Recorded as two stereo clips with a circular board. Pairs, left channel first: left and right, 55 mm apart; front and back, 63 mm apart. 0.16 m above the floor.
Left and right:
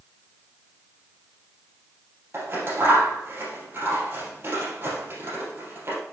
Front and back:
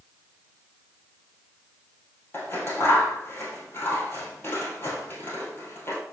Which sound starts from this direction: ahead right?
Scissors, at 2.3 s.